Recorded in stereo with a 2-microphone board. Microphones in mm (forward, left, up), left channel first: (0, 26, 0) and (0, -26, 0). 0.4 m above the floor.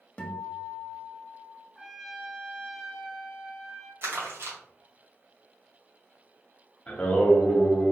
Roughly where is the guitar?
Left.